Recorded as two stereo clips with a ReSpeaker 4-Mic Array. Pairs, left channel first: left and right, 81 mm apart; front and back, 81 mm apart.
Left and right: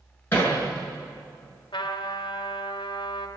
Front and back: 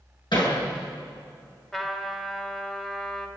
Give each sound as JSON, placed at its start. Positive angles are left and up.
{"t": 0.3, "sound": "hammering", "azimuth_deg": 25, "distance_m": 7.5}
{"t": 1.7, "sound": "a trumpet", "azimuth_deg": 85, "distance_m": 2.0}